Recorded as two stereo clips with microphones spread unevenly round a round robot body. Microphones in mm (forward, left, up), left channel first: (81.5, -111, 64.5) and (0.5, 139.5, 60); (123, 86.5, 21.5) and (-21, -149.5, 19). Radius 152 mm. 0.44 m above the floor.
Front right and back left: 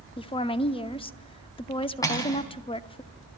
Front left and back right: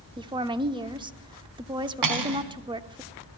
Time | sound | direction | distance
0.2 | a woman speaking | 90° right | 0.7 m
2.0 | cutlery clinking | 150° right | 2.5 m